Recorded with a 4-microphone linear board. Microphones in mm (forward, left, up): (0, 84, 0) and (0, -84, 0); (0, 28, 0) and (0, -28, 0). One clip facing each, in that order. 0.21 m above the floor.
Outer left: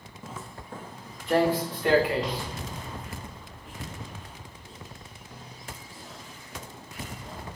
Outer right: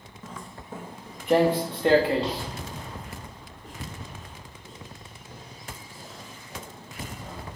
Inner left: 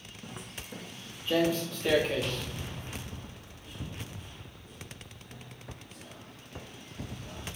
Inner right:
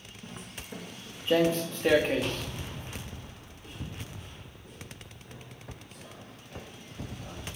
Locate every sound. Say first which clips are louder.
0.2 s footsteps: even, even; 10° left (ahead or behind), 0.9 m; by 7.4 s 50° right (ahead or behind), 5 m